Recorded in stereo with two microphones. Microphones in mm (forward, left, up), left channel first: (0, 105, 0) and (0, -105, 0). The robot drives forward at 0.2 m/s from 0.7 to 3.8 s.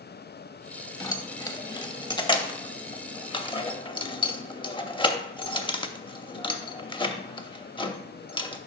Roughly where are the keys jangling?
Centre.